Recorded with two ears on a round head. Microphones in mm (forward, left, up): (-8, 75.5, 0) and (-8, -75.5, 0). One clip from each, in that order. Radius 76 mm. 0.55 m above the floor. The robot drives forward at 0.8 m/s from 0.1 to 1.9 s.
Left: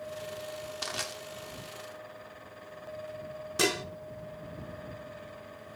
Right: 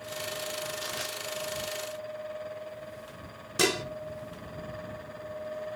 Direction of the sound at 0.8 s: 40° left (ahead or behind).